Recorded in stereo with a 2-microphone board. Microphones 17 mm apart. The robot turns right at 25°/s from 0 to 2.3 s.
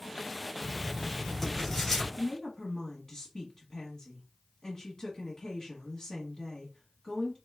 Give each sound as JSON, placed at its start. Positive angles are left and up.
{"t": 0.6, "sound": "writing", "azimuth_deg": -5, "distance_m": 2.5}
{"t": 2.2, "sound": "a woman speaking", "side_deg": 25, "distance_m": 1.1}